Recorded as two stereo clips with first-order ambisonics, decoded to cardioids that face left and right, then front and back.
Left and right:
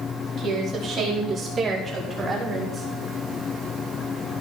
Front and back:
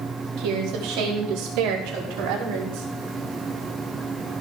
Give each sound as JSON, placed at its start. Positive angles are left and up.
{"t": 0.4, "sound": "a woman speaking", "azimuth_deg": -150, "distance_m": 4.5}